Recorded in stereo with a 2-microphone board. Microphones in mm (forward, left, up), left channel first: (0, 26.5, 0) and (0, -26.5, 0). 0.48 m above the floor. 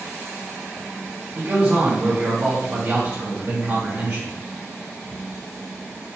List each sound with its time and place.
1.4 s a man speaking: 40° right (ahead or behind), 1.7 m